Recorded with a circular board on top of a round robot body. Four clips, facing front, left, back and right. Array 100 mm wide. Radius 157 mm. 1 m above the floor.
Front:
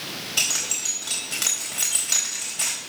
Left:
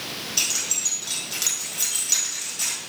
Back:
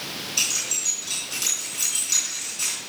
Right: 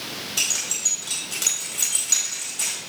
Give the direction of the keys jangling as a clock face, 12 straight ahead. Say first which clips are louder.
Even, front 2 dB; 12 o'clock.